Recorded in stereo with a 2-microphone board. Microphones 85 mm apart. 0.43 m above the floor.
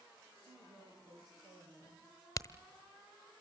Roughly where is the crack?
Left.